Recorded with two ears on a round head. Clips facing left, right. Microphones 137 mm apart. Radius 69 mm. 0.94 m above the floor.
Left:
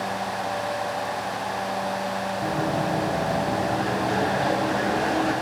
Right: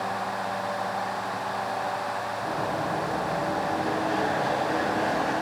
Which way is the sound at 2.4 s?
75° left (ahead or behind).